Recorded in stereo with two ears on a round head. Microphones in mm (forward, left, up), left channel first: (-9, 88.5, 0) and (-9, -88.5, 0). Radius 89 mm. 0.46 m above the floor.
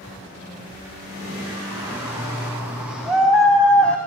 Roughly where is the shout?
Centre.